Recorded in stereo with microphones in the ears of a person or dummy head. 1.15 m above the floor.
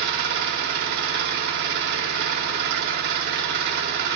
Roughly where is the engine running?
Right.